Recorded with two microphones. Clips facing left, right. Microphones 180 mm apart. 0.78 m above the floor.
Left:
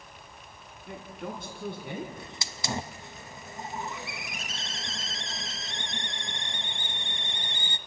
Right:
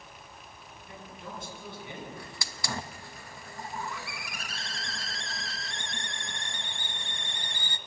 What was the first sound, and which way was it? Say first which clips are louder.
A man speaking: left 6 dB; 65° left (ahead or behind).